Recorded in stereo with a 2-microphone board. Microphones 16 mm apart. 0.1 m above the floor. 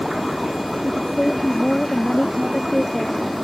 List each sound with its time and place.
0.8 s a woman speaking: 45° left (ahead or behind)